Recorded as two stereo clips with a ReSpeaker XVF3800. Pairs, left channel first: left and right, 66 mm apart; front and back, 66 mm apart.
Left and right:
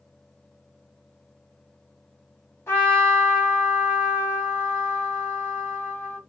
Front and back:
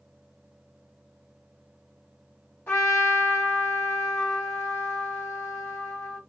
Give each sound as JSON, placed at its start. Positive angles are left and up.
{"t": 2.7, "sound": "a trumpet", "azimuth_deg": 50, "distance_m": 1.7}